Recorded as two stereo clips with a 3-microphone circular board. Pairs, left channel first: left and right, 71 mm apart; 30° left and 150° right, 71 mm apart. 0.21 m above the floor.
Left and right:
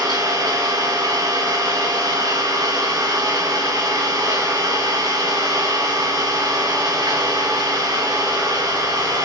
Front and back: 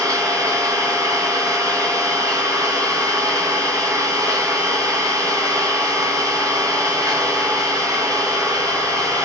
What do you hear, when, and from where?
0.0 s an engine running: 115° right, 5 m